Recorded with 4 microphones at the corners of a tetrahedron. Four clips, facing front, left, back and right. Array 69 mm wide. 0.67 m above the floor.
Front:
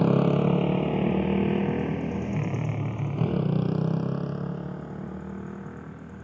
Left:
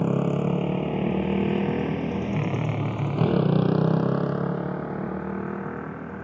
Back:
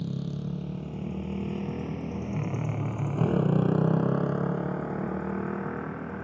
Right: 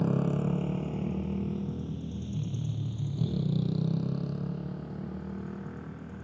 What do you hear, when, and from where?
0.0 s a motorcycle: 20° left; by 6.2 s 130° left